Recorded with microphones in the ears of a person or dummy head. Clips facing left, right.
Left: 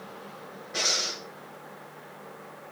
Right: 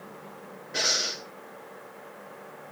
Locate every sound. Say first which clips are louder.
0.7 s breathing: right 1 dB; 5° right (ahead or behind), 2.5 m